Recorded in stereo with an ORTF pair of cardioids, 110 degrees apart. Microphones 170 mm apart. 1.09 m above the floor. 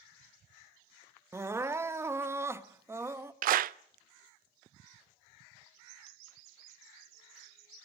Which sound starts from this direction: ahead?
Crying, at 1.3 s.